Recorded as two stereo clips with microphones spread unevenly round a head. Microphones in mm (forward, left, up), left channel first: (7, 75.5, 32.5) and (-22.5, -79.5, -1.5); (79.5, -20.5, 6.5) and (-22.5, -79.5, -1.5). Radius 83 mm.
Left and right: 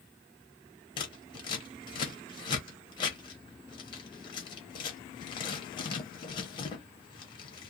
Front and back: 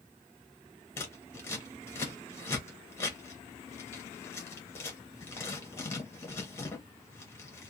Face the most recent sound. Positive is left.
turn(degrees=85)